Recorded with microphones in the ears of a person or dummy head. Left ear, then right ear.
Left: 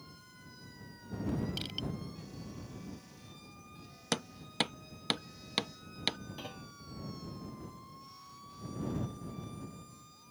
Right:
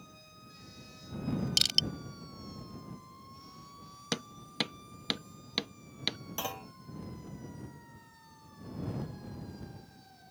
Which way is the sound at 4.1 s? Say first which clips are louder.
Left 1 dB; 5° left (ahead or behind).